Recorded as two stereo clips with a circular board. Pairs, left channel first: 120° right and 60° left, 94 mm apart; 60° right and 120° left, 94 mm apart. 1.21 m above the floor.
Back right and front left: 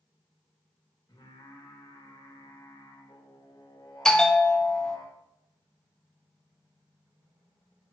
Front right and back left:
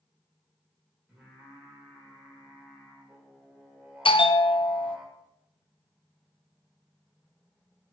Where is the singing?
160° right, 1.9 m.